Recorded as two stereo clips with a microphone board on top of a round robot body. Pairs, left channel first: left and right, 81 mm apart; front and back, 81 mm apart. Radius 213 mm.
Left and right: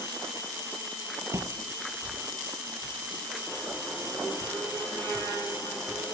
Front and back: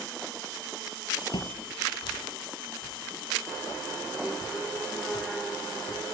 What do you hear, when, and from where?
1.3 s footsteps: 30° right; by 6.0 s 15° right